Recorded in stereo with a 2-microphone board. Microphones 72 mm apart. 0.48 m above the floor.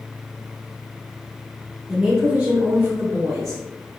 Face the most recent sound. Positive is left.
turn(degrees=-60)  # may be behind; listen again after turning